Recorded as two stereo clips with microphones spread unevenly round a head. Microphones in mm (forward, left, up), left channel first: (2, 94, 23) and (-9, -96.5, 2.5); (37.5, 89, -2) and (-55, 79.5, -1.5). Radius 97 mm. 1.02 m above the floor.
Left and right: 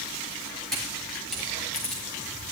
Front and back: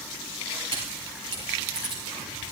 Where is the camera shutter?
175° left, 6 m.